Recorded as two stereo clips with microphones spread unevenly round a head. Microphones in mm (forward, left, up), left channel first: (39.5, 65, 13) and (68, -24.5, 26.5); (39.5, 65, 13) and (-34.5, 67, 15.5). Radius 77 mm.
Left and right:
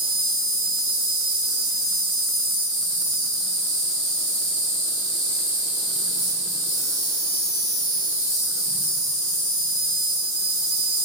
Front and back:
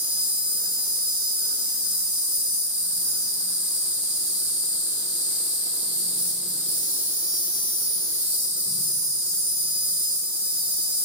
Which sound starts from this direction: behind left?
An insect, at 0.0 s.